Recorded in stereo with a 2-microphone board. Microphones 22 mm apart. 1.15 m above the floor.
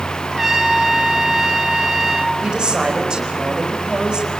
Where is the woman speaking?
45° right (ahead or behind), 5 m.